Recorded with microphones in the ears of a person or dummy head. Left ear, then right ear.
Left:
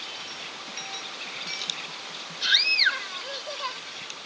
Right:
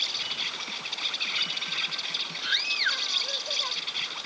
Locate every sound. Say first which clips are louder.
0.0 s an insect: right 7 dB; 35° right (ahead or behind)
2.4 s a scream: left 7 dB; 25° left (ahead or behind)